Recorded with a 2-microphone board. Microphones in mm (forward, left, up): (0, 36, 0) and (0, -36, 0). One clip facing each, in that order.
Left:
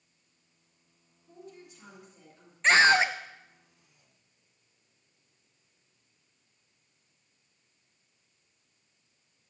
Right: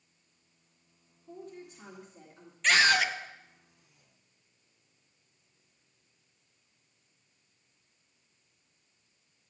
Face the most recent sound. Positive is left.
turn(degrees=30)  # may be behind; listen again after turning